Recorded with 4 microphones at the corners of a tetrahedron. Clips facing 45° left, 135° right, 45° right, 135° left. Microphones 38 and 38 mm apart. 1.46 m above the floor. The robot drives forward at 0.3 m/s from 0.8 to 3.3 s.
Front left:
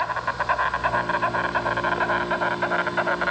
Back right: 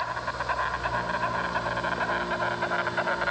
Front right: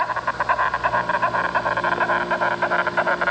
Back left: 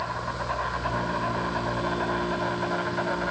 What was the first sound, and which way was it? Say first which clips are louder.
An insect: front left 5 dB, front right 8 dB; 20° right.